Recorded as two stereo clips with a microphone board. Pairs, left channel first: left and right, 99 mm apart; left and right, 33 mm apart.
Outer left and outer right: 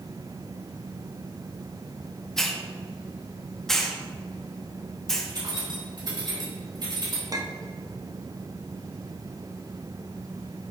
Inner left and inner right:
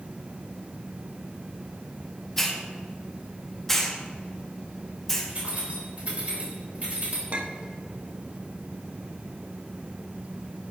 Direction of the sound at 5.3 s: 45° right (ahead or behind).